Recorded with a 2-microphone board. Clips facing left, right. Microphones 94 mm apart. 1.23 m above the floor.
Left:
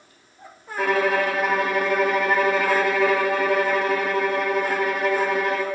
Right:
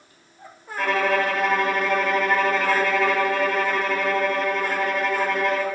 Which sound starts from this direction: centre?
A violin, at 0.8 s.